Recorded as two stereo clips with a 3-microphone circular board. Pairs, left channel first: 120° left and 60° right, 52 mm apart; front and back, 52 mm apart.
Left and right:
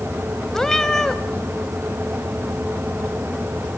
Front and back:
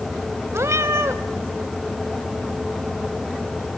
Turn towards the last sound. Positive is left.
turn(degrees=-160)